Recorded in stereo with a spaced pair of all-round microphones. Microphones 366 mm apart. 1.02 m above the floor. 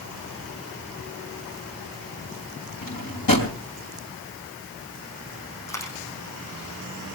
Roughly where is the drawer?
Left.